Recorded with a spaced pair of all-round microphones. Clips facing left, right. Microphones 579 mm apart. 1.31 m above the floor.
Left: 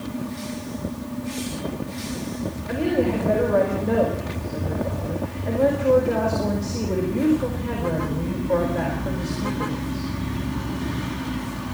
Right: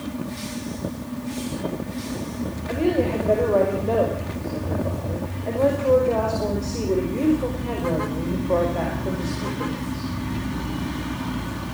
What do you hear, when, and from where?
2.7 s a woman speaking: 40° left (ahead or behind), 5 m